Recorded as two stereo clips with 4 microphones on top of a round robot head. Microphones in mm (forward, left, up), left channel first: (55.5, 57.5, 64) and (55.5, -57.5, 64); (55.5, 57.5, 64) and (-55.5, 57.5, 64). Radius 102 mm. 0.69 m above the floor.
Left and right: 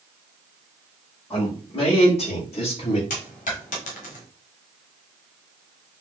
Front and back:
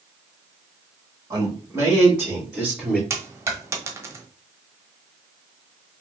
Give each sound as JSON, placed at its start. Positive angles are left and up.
{"t": 1.3, "sound": "a man speaking", "azimuth_deg": 125, "distance_m": 2.0}
{"t": 3.1, "sound": "a dropped coin", "azimuth_deg": 115, "distance_m": 1.1}